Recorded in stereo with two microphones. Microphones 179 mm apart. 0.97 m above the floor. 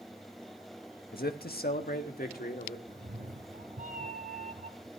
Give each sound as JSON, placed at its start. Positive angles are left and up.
{"t": 1.1, "sound": "a man speaking", "side_deg": 60, "distance_m": 1.5}
{"t": 2.9, "sound": "a cat meowing", "side_deg": -55, "distance_m": 1.3}